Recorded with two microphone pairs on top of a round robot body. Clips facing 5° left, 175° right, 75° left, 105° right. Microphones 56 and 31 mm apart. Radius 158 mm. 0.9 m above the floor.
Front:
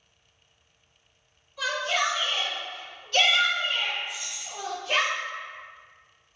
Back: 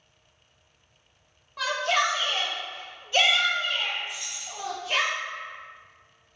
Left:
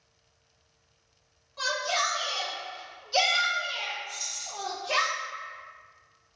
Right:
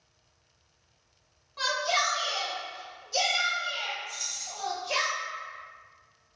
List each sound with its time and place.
1.6 s a shout: 175° right, 1.1 m; by 5.1 s 45° left, 1.1 m
4.1 s keys jangling: 5° left, 1.1 m